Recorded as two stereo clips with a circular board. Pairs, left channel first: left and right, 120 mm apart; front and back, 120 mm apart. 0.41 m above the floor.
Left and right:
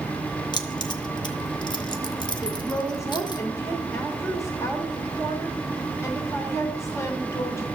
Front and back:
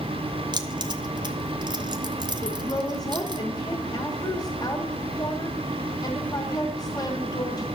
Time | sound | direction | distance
0.5 | keys jangling | 135° left | 0.9 m
2.4 | a woman speaking | 35° left | 1.3 m